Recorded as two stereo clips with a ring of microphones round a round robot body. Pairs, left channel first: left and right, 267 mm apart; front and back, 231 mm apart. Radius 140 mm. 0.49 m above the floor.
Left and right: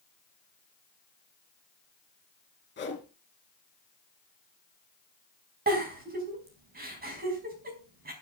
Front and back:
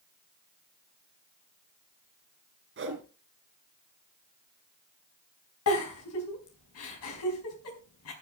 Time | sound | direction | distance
2.8 | a whoosh | 145° left | 4 m
5.7 | a giggle | 30° right | 4.5 m